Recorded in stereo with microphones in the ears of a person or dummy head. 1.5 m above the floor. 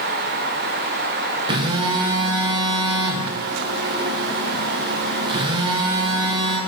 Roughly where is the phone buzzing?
Right.